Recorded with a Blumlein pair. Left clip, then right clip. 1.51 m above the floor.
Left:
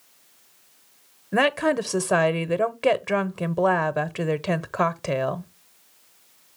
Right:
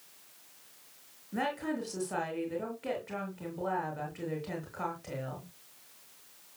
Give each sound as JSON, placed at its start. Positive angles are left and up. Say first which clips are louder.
{"t": 1.3, "sound": "a woman speaking", "louder": "left 13 dB", "azimuth_deg": 50, "distance_m": 0.9}